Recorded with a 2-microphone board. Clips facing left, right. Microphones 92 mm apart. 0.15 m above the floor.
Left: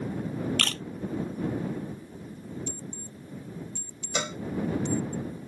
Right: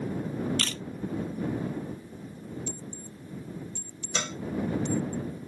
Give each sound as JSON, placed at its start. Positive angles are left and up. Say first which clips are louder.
{"t": 0.6, "sound": "a camera shutter", "louder": "left 2 dB", "side_deg": 60}
{"t": 2.7, "sound": "an alarm clock", "louder": "even", "side_deg": 60}
{"t": 4.2, "sound": "a cowbell", "louder": "left 2 dB", "side_deg": 10}